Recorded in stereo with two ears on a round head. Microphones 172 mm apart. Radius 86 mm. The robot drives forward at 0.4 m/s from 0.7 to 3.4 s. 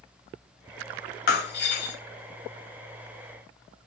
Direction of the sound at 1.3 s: 55° left (ahead or behind).